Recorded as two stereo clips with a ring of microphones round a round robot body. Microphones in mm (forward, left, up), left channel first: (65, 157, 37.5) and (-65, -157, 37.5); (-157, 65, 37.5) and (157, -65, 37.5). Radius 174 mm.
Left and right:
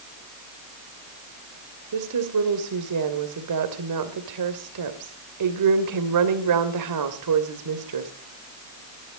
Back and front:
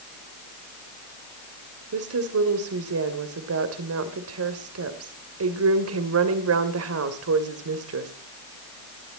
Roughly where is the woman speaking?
Right.